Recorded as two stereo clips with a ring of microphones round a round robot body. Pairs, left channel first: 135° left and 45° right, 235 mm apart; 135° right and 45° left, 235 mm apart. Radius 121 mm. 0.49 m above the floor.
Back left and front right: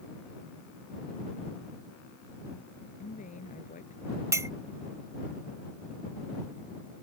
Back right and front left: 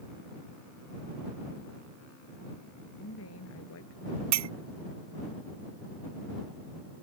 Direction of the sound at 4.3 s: 35° left.